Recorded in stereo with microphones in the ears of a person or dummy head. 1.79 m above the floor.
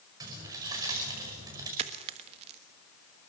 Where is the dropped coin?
40° right (ahead or behind), 1.4 m.